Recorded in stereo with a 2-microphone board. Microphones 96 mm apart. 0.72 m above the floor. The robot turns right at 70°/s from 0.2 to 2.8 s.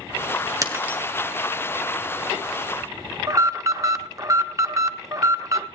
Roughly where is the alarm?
Right.